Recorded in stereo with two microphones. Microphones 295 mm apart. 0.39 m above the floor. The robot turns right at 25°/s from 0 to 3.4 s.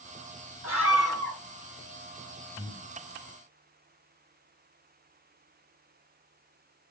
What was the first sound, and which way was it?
A scream, 55° left (ahead or behind).